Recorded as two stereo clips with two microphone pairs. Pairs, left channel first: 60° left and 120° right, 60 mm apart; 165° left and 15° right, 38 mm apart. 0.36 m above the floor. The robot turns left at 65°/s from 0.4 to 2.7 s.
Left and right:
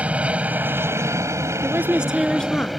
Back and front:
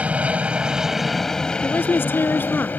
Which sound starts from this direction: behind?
A woman speaking, at 1.6 s.